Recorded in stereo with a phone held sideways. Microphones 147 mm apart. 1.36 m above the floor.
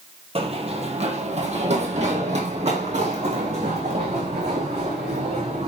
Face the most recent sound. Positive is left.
turn(degrees=-45)  # may be behind; listen again after turning